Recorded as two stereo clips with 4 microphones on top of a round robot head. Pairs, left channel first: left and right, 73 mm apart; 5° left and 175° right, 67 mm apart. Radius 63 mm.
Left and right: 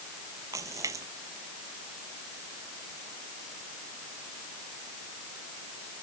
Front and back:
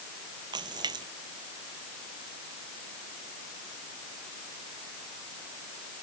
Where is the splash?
145° right.